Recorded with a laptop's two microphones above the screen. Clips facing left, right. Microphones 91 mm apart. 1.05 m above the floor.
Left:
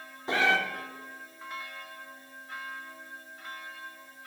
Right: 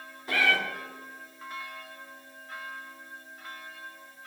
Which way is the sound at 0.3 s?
25° left (ahead or behind).